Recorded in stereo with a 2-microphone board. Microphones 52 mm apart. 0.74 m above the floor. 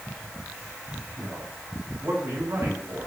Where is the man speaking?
60° right (ahead or behind), 4 m.